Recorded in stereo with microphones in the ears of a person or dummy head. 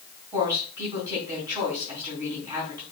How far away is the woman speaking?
About 3.5 m.